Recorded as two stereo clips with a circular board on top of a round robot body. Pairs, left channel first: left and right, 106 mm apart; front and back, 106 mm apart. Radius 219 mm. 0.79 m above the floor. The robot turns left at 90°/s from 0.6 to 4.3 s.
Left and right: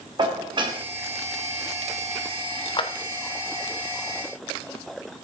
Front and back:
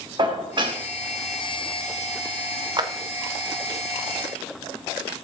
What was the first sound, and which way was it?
Dishes clattering, 135° right.